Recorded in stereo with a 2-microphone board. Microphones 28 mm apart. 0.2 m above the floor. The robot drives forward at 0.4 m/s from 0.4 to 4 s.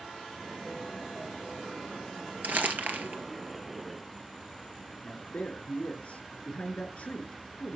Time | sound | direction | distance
2.4 | crumpling | 70° right (ahead or behind) | 2.5 m
5.0 | a man speaking | 45° left (ahead or behind) | 3.5 m